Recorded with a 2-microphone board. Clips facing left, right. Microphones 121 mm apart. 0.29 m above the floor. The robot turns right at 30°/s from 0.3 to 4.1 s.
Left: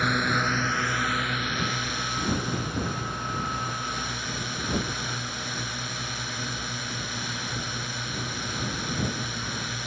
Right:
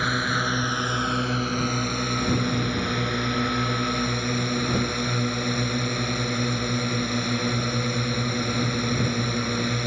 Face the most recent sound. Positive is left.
turn(degrees=-65)